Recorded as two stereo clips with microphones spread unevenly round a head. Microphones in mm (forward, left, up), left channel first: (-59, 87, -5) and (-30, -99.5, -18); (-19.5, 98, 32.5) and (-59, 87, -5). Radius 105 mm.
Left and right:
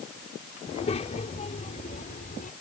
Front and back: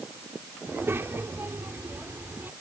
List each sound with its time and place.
0.7 s a child speaking: 155° left; by 2.5 s 140° left